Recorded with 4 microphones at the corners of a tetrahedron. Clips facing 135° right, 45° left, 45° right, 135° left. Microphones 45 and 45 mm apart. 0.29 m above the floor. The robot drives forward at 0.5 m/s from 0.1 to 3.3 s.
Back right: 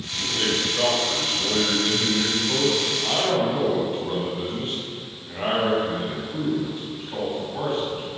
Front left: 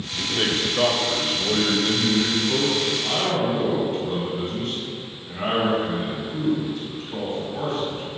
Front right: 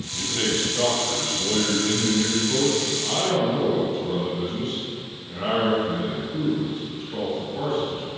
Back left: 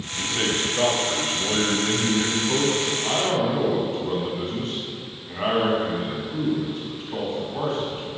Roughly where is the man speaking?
Ahead left.